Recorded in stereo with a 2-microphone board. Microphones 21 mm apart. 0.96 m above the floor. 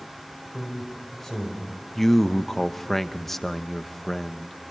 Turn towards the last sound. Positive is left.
turn(degrees=10)  # may be behind; listen again after turning